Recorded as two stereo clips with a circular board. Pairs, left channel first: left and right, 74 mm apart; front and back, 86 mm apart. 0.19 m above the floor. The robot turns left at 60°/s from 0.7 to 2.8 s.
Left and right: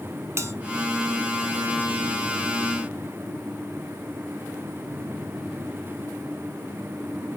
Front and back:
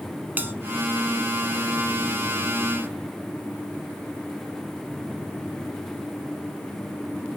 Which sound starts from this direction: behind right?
A bell, at 0.4 s.